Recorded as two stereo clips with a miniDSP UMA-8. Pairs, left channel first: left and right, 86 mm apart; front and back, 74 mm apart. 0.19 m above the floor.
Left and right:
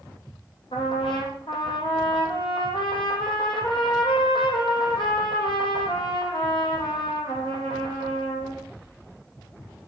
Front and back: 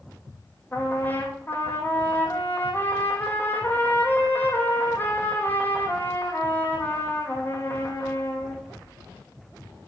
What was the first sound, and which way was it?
A trumpet, 65° left.